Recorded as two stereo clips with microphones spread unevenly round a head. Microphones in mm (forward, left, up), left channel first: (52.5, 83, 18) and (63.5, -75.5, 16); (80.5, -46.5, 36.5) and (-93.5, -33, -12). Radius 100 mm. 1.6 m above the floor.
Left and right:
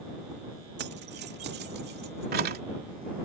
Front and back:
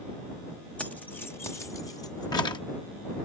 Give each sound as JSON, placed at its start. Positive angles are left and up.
{"t": 0.8, "sound": "keys jangling", "azimuth_deg": -85}